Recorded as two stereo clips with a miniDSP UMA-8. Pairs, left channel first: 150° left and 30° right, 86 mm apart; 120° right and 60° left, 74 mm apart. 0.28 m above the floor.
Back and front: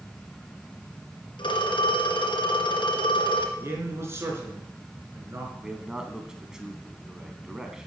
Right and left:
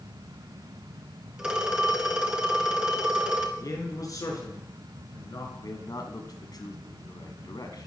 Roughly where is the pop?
I don't hear a pop.